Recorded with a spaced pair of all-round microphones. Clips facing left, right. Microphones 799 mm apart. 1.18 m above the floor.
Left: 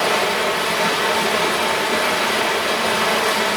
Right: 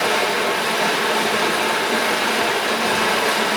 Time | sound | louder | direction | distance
0.0 | running water | even | 40° left (ahead or behind) | 1.3 m